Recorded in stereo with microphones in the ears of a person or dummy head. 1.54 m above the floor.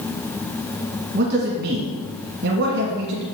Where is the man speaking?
60° right (ahead or behind), 1.6 m.